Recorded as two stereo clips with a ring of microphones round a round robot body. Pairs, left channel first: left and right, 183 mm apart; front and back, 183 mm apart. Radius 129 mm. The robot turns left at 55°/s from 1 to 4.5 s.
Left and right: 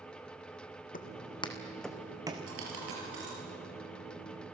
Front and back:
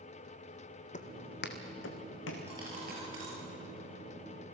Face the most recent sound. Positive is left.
turn(degrees=150)